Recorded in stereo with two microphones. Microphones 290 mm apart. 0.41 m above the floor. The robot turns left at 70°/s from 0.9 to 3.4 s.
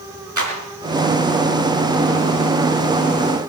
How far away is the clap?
About 4.5 m.